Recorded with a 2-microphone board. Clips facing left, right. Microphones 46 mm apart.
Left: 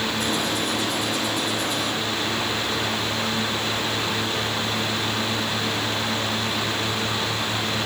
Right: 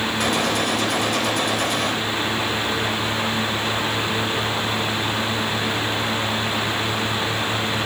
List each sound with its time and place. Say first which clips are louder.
0.2 s a gunshot: right 4 dB; 85° right, 4 m